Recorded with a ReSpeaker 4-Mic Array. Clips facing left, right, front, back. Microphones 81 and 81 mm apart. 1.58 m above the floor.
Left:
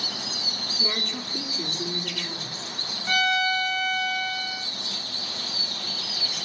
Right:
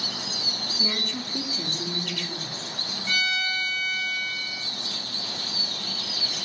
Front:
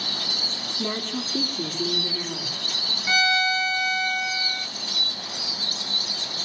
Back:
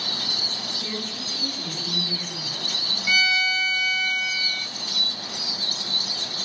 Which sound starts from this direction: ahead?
A woman speaking, at 0.8 s.